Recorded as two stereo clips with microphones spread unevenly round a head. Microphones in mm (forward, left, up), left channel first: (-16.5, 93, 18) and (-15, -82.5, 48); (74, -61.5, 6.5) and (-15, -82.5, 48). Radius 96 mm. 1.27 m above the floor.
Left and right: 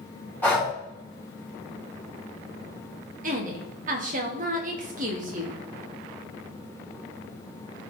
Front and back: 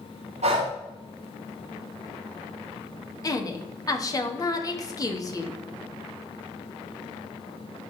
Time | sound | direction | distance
0.4 | breathing | 170° left | 3 m
3.2 | a woman speaking | 40° right | 1.6 m